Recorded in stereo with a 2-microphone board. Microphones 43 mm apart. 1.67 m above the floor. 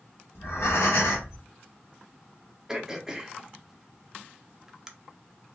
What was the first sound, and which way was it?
Breathing, 65° left (ahead or behind).